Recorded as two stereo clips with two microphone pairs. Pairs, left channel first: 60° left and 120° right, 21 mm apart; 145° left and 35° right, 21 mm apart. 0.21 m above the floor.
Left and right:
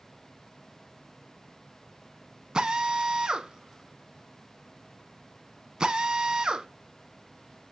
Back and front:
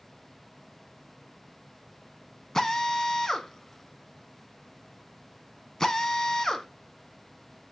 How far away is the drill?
About 0.8 m.